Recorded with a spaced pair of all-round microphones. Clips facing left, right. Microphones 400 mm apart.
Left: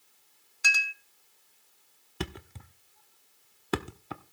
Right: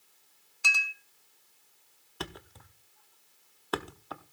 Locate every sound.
0.6 s a clink: 30° left (ahead or behind), 0.6 m
2.2 s a thud: 40° left (ahead or behind), 0.8 m